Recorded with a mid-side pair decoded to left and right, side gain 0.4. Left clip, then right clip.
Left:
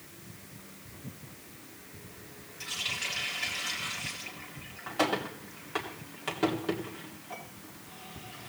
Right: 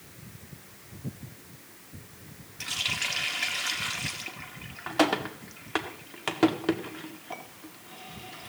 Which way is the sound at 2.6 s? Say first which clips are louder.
Right 4 dB; 55° right.